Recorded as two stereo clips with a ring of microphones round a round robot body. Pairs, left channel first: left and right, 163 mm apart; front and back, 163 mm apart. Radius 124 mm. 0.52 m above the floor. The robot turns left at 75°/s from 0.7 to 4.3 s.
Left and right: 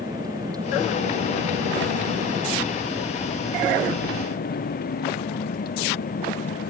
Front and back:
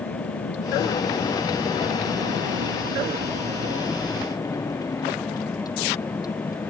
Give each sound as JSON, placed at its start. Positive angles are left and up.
{"t": 0.0, "sound": "a vehicle", "azimuth_deg": -20}